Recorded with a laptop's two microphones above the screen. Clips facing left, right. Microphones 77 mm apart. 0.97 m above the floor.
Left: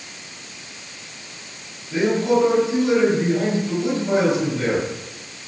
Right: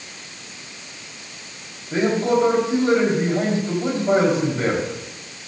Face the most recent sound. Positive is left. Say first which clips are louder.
# even
turn(degrees=-40)  # may be behind; listen again after turning